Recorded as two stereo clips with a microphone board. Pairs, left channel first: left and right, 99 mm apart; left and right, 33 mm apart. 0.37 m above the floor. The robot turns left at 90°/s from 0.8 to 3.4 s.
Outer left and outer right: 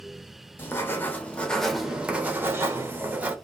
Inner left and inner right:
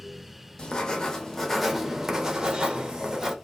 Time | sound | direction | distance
0.6 | writing | 20° left (ahead or behind) | 0.6 m